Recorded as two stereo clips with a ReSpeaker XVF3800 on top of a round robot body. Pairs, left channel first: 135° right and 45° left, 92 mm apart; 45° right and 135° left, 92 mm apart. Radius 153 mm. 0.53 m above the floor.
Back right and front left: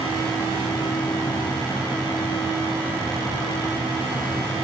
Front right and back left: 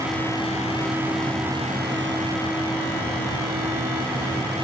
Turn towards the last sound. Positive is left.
No sound to turn to.